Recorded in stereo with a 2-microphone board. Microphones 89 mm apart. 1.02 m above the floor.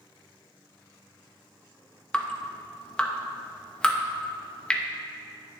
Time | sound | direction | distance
2.1 | dripping | 10° left (ahead or behind) | 0.6 m